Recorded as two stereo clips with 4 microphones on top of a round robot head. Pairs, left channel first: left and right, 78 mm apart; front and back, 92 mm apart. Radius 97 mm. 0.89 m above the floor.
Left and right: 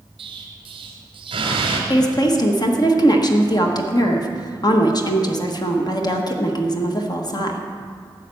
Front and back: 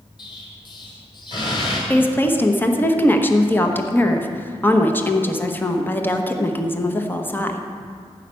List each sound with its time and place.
0.2 s an explosion: 55° right, 1.7 m
1.9 s a woman speaking: 65° left, 1.3 m